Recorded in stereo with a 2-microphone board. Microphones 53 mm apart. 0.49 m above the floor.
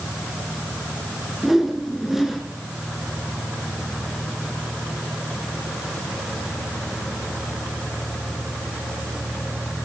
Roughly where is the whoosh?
Centre.